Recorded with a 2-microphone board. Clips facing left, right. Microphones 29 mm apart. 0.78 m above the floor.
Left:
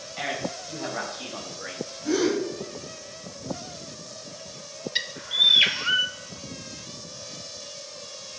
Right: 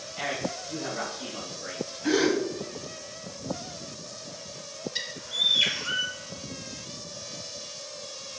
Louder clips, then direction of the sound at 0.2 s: Left 1 dB; 20° left (ahead or behind).